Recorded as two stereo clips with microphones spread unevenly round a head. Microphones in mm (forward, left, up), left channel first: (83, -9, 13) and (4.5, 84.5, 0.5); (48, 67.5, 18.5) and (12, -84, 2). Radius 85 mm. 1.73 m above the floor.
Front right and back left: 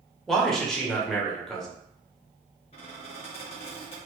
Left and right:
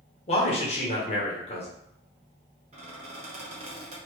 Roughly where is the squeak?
Ahead right.